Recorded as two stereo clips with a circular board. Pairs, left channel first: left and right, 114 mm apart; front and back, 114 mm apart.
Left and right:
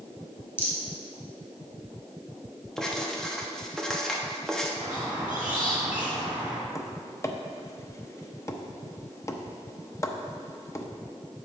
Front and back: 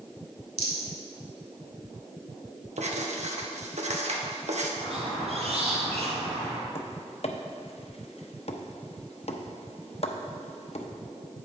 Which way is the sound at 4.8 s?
165° right.